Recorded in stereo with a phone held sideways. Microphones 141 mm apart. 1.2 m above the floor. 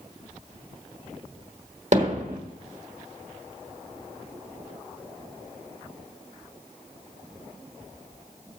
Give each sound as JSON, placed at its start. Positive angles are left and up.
{"t": 1.9, "sound": "hammering", "side_deg": -55, "distance_m": 1.7}